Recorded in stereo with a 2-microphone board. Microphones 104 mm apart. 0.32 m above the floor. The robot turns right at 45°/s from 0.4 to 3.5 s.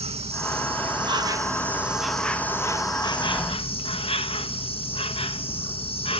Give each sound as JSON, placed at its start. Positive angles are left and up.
{"t": 0.0, "sound": "an insect", "azimuth_deg": -75, "distance_m": 0.7}